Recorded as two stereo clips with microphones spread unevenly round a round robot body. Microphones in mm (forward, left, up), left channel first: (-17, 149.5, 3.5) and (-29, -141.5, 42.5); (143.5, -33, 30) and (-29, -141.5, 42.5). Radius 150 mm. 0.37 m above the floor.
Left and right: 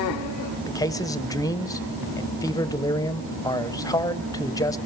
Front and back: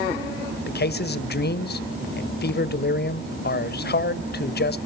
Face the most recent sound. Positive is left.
turn(degrees=15)